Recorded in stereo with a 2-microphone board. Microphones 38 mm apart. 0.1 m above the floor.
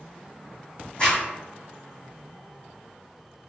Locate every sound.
1.0 s a zipper: 25° left (ahead or behind), 1.4 m